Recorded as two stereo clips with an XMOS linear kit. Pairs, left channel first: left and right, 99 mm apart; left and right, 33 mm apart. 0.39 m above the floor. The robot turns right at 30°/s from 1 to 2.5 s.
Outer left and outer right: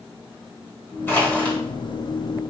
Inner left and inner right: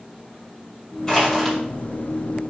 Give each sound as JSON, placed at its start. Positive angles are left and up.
{"t": 1.1, "sound": "crushing", "side_deg": 20, "distance_m": 1.5}